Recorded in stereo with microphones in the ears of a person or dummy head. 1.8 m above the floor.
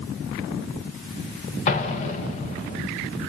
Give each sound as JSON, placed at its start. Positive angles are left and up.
{"t": 1.7, "sound": "an explosion", "side_deg": 40, "distance_m": 1.6}